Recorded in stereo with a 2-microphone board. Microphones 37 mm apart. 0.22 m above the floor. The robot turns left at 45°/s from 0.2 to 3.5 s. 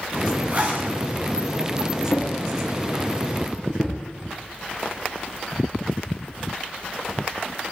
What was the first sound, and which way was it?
A zipper, 45° right (ahead or behind).